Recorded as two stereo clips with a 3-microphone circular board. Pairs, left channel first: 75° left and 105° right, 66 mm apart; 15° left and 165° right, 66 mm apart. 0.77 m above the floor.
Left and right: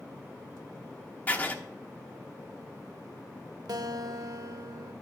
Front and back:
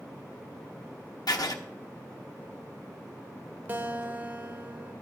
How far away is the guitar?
About 0.9 m.